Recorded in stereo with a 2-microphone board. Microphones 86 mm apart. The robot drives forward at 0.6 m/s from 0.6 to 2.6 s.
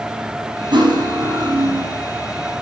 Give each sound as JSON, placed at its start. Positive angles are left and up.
{"t": 0.7, "sound": "cutlery clinking", "side_deg": -60, "distance_m": 3.5}